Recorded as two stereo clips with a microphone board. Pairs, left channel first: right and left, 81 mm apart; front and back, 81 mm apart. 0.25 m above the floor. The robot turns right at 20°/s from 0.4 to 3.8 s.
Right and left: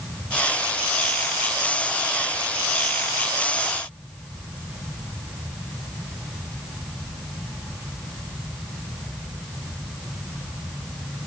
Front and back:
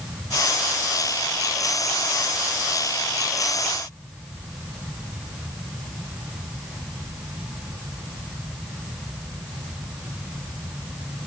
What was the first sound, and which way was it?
Only background noise.